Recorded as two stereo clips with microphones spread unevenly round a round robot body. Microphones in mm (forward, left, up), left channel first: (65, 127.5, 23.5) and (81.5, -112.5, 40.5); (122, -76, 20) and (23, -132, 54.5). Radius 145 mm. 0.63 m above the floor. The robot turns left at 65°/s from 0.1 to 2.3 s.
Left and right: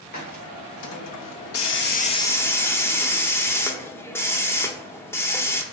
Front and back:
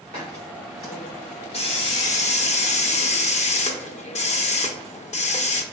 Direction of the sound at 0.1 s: 155° left.